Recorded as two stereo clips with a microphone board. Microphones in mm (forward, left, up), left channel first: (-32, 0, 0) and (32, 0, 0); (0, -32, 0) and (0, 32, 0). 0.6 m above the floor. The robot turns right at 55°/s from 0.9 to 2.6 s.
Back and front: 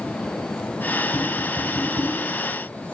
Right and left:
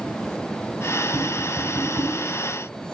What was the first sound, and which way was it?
Tapping, 30° right.